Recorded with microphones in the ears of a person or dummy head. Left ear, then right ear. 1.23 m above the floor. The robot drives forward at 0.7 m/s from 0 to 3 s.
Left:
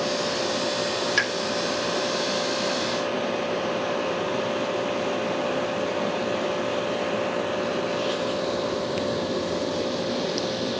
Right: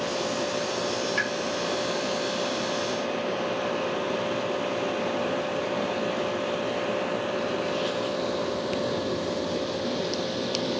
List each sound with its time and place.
1.2 s a pop: 25° left (ahead or behind), 1.0 m